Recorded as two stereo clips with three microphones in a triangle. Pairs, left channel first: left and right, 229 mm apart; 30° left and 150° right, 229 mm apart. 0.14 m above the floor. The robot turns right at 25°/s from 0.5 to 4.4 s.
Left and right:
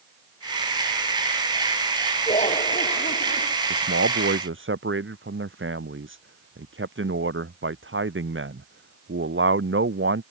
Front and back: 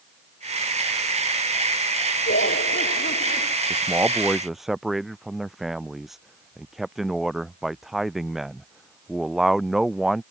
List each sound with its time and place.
2.3 s laughter: 30° left; by 3.5 s 65° left
3.7 s a man speaking: 80° right; by 10.2 s 60° right